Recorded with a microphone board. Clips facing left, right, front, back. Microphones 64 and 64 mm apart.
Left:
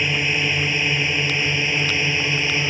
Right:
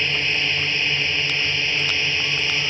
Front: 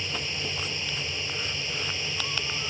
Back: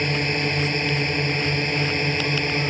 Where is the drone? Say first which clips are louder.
Left 2 dB, back 10 dB; 165° left; by 2.7 s 160° left.